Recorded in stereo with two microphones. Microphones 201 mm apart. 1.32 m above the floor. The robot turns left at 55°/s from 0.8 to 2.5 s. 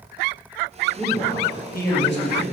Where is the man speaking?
Straight behind, 1.7 m; by 2.4 s 100° left, 1.7 m.